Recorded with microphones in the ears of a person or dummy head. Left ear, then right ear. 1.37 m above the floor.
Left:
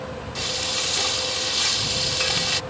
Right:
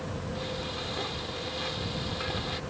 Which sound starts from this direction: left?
Frying, at 0.3 s.